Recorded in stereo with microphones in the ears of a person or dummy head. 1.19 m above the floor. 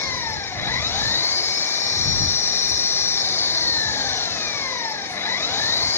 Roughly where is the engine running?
Centre.